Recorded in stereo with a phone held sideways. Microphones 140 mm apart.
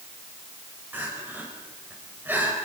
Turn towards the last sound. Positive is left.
turn(degrees=-15)  # may be behind; listen again after turning